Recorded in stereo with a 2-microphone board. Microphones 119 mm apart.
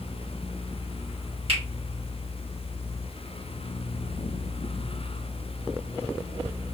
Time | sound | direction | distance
1.5 | a finger snap | 55° right (ahead or behind) | 1.5 m